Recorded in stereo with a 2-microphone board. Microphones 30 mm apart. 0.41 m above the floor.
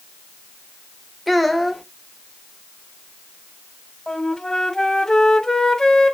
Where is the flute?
20° left (ahead or behind), 0.6 m.